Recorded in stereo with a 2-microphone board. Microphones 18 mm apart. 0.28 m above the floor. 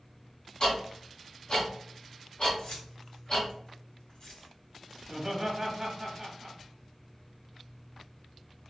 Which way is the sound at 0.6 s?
50° left (ahead or behind).